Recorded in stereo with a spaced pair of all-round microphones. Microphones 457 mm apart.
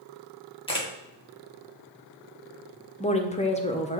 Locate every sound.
0.7 s a camera shutter: 10° left (ahead or behind), 1.1 m
3.0 s a woman speaking: 15° left (ahead or behind), 0.6 m